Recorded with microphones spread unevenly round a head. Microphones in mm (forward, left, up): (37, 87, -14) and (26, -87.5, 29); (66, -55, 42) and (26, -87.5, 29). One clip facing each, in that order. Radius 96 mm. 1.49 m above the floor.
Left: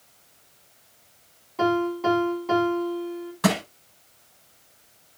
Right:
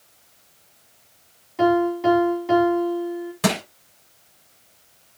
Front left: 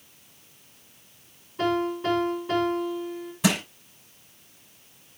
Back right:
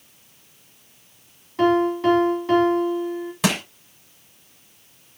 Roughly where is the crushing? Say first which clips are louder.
Even, back right 1 dB; behind.